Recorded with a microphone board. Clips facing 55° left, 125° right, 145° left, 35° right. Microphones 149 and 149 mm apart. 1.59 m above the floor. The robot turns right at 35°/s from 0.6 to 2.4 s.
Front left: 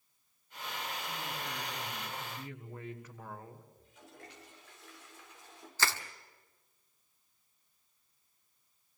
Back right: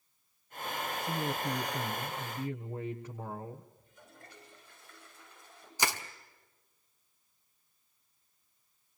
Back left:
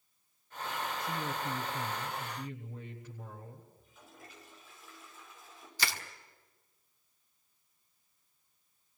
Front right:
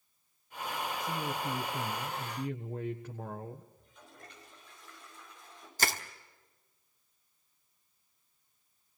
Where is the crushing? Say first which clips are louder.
Back right 2 dB, front right 4 dB; 55° right, 1.6 m.